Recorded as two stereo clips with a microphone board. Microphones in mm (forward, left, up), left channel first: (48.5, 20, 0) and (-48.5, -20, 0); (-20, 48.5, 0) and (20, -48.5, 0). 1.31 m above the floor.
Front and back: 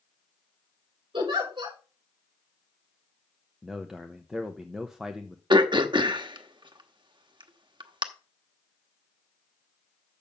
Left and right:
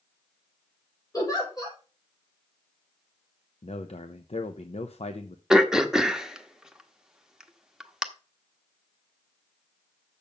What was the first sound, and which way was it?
A giggle, 165° left.